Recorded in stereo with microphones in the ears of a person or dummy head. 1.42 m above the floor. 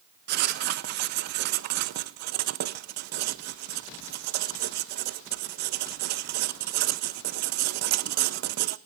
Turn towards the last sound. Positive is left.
turn(degrees=-55)  # may be behind; listen again after turning